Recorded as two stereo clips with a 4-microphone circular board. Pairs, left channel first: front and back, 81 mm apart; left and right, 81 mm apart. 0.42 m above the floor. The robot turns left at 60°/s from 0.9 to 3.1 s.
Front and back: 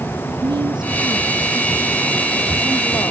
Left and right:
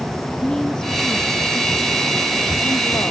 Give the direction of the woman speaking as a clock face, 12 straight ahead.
6 o'clock.